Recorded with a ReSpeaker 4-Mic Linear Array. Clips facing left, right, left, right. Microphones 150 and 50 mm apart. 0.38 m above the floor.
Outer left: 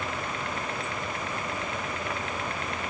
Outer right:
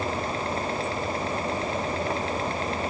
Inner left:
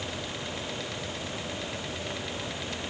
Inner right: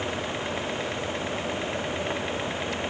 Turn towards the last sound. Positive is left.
No sound to turn to.